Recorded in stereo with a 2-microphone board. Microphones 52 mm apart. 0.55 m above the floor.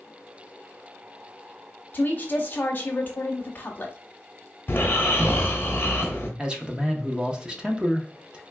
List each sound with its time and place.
1.9 s a woman speaking: 35° left (ahead or behind), 1.0 m
4.7 s snoring: 40° left (ahead or behind), 1.3 m
6.4 s a man speaking: 15° right (ahead or behind), 0.6 m